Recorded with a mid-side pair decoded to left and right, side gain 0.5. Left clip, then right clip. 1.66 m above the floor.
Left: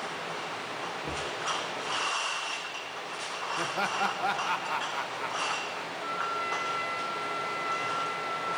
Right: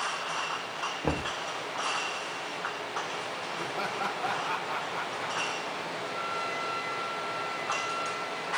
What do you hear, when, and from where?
1.0 s knocking: 65° right, 1.1 m
3.6 s laughter: 25° left, 1.8 m
6.0 s a trumpet: 30° left, 5 m